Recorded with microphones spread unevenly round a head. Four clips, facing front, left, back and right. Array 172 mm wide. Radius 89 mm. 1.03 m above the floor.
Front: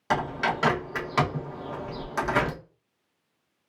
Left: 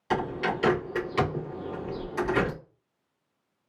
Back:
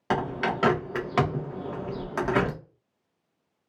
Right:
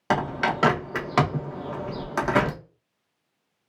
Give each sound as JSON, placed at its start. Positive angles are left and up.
{"t": 0.1, "sound": "a bird", "azimuth_deg": -100, "distance_m": 0.9}